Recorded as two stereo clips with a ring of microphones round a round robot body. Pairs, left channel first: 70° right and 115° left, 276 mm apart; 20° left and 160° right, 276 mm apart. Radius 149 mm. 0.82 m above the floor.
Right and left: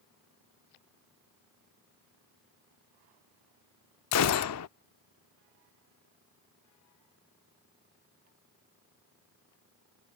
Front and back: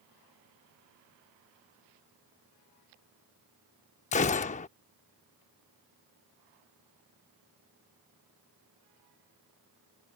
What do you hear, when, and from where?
4.1 s a gunshot: 40° right